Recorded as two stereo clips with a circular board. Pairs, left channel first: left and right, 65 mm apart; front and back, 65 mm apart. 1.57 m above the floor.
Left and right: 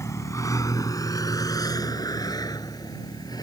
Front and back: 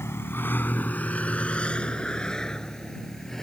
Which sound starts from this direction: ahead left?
A vehicle, at 0.0 s.